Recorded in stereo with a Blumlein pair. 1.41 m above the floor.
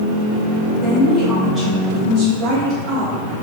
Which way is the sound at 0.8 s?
30° left.